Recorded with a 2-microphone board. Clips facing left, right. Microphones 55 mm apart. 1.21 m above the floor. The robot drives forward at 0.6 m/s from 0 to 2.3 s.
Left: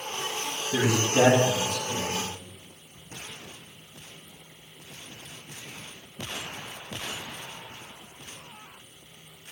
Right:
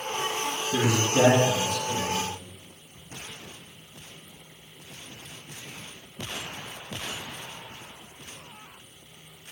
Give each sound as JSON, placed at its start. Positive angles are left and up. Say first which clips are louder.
{"t": 0.7, "sound": "a man speaking", "louder": "left 1 dB", "side_deg": 50, "distance_m": 1.6}